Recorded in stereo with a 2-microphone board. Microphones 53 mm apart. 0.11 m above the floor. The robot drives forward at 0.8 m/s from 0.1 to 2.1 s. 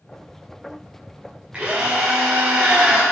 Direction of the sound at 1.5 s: 20° right (ahead or behind).